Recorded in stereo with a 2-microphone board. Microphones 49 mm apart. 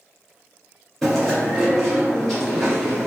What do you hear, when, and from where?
1.0 s chewing: 10° left (ahead or behind), 1.4 m